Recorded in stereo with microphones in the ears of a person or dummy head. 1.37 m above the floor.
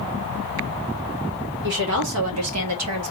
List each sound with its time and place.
1.6 s a woman speaking: 55° right (ahead or behind), 1.4 m; by 3.1 s 65° right (ahead or behind), 1.1 m